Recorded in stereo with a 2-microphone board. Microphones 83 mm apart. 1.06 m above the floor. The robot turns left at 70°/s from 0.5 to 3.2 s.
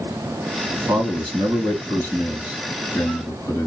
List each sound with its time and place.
0.7 s a man speaking: 45° right, 1.7 m; by 3.7 s 140° left, 1.7 m